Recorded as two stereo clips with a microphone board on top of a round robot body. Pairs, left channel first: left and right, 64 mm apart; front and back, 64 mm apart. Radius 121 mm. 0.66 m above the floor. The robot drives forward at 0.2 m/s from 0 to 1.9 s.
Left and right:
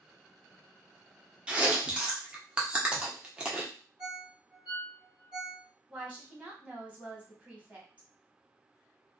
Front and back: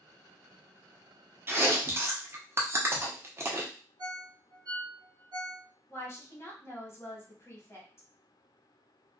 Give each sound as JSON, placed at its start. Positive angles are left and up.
{"t": 1.5, "sound": "chewing", "azimuth_deg": -155, "distance_m": 0.8}
{"t": 4.0, "sound": "a ringtone", "azimuth_deg": -160, "distance_m": 1.3}
{"t": 5.9, "sound": "a woman speaking", "azimuth_deg": -25, "distance_m": 1.3}